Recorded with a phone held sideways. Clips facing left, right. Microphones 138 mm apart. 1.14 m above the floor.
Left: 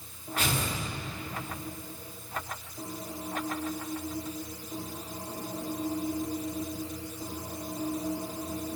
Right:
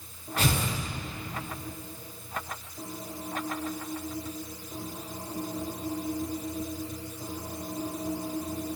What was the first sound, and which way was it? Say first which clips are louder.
Tearing paper: right 3 dB; 40° right (ahead or behind).